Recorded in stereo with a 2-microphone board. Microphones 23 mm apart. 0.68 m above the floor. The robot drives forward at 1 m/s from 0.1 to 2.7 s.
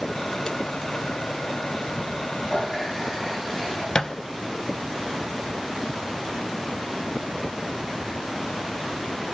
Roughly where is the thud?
Left.